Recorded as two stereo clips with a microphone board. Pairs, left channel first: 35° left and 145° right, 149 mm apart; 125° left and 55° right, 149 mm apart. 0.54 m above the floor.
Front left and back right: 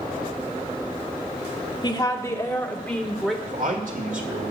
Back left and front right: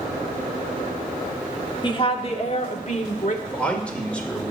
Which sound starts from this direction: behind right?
A man speaking, at 3.5 s.